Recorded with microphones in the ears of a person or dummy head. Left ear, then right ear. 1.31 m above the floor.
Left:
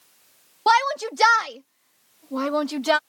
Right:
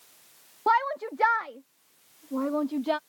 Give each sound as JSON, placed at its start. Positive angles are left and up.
{"t": 0.7, "sound": "a shout", "side_deg": 85}